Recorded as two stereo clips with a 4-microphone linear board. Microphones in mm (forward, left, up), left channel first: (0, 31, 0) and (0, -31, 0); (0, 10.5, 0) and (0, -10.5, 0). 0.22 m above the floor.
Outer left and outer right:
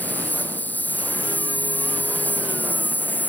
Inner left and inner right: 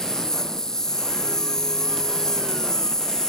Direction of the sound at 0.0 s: 25° left (ahead or behind).